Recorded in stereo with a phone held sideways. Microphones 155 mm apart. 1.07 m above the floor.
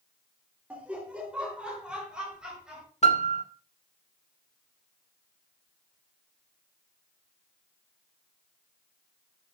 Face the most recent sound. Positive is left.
turn(degrees=45)  # may be behind; listen again after turning